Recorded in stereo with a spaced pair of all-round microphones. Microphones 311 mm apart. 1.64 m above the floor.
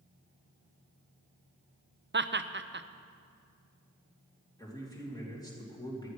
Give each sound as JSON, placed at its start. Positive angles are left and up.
{"t": 2.1, "sound": "laughter", "side_deg": -35, "distance_m": 0.5}
{"t": 4.6, "sound": "a man speaking", "side_deg": 10, "distance_m": 3.0}